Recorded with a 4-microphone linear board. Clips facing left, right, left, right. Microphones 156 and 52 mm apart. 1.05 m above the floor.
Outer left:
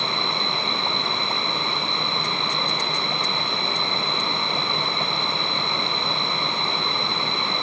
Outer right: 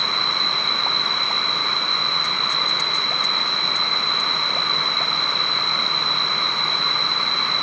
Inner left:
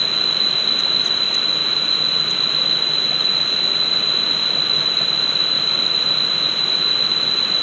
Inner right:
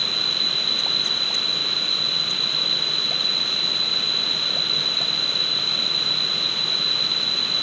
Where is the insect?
20° right (ahead or behind).